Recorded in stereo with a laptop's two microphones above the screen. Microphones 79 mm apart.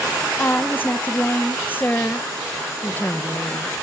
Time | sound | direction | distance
0.4 | a woman speaking | 25° left (ahead or behind) | 0.7 m